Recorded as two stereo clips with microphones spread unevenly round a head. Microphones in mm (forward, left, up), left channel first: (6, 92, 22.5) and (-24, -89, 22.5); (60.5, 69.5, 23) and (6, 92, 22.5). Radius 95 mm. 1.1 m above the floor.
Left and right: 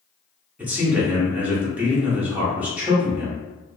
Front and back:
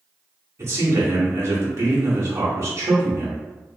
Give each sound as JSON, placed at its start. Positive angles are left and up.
{"t": 0.6, "sound": "a man speaking", "azimuth_deg": 180, "distance_m": 0.9}